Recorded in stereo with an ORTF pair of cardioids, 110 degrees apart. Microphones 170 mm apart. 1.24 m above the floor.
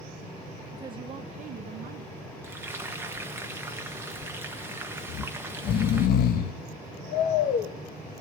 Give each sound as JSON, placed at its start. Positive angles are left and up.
{"t": 0.7, "sound": "a woman speaking", "azimuth_deg": -20, "distance_m": 0.6}
{"t": 2.4, "sound": "frying", "azimuth_deg": -15, "distance_m": 1.2}
{"t": 5.1, "sound": "snoring", "azimuth_deg": 65, "distance_m": 1.2}